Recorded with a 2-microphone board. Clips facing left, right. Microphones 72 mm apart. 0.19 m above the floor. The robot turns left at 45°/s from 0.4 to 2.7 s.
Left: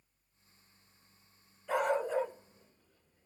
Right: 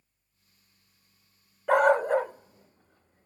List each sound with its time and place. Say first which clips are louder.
1.7 s a dog barking: right 10 dB; 65° right (ahead or behind), 1.1 m; by 3.3 s 45° right (ahead or behind), 1.1 m